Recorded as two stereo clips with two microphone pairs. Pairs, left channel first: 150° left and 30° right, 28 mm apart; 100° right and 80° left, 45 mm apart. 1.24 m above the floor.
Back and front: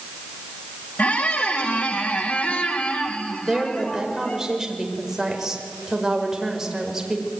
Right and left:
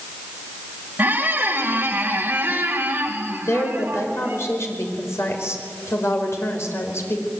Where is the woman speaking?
110° right, 5 m.